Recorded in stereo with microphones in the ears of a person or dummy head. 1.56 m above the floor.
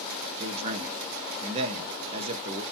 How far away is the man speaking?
About 0.5 m.